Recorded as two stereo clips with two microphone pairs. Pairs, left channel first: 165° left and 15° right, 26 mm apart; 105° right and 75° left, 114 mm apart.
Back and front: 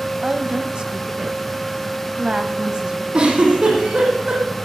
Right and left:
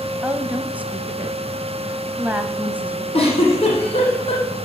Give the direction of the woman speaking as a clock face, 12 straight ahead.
12 o'clock.